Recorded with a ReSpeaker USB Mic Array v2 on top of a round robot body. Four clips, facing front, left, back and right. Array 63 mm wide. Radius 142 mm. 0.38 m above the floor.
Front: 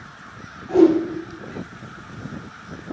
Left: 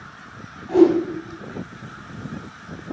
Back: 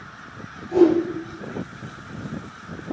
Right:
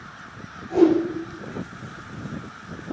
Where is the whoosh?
50° left, 4.5 m.